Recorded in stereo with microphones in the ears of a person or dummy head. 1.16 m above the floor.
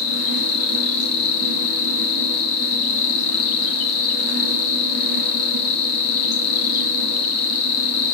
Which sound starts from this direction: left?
An insect, at 0.0 s.